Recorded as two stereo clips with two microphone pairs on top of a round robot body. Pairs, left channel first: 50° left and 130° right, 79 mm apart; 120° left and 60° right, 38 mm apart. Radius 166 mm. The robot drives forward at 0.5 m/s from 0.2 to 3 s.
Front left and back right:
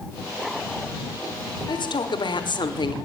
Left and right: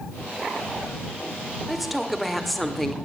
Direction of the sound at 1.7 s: 30° left.